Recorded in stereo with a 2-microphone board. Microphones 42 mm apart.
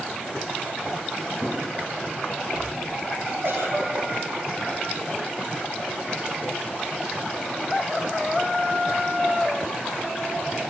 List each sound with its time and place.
1.4 s an explosion: 30° right (ahead or behind), 5 m
3.4 s a giggle: 70° right (ahead or behind), 6 m